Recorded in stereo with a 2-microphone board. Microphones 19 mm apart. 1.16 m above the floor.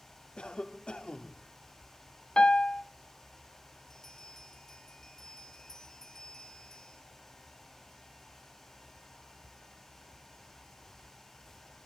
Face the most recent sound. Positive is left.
turn(degrees=25)  # may be behind; listen again after turning